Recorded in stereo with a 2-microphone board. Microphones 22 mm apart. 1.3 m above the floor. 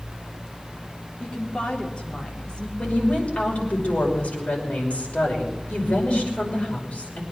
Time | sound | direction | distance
1.2 | a woman speaking | 55° left (ahead or behind) | 3.5 m
2.8 | a woman speaking | 65° left (ahead or behind) | 5.5 m